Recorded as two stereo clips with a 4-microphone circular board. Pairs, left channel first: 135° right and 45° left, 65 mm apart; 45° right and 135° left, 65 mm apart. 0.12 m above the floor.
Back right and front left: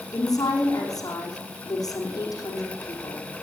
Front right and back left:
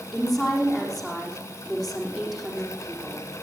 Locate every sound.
0.1 s a woman speaking: 140° right, 4.5 m